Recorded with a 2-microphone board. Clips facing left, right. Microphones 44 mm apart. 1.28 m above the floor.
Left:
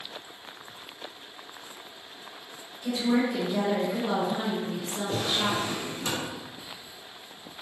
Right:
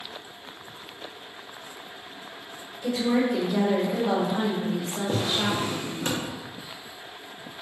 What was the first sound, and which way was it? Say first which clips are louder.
A woman speaking: right 2 dB; 70° right (ahead or behind).